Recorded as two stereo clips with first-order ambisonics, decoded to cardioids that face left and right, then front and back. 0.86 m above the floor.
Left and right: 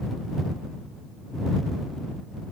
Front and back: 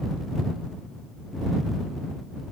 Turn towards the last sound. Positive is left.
No sound to turn to.